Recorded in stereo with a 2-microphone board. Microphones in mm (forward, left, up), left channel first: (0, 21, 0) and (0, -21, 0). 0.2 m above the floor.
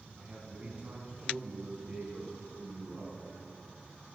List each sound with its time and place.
0.2 s a man speaking: 30° right (ahead or behind), 1.3 m